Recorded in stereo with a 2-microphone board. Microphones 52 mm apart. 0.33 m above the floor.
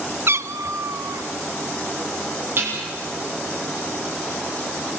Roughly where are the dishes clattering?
Right.